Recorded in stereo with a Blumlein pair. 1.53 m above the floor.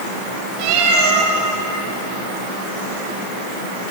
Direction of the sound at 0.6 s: 40° right.